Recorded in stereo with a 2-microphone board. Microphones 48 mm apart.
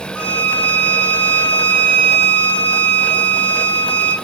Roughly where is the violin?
Left.